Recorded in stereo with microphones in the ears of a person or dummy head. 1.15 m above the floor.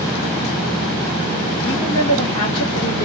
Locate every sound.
1.6 s a woman speaking: 40° left (ahead or behind), 1.7 m